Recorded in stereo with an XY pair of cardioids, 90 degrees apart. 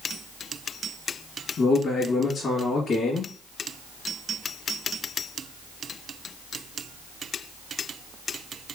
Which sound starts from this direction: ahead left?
A man speaking, at 1.6 s.